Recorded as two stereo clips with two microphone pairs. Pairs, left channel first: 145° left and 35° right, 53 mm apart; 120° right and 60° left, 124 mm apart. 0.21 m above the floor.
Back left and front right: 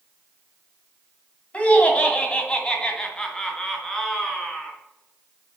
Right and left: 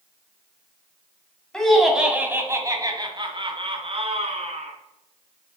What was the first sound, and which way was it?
Laughter, 165° left.